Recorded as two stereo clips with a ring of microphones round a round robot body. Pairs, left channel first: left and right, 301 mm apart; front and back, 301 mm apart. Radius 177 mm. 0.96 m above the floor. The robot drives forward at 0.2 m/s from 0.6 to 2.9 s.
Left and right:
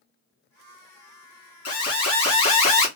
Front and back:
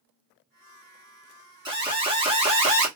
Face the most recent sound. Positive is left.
turn(degrees=115)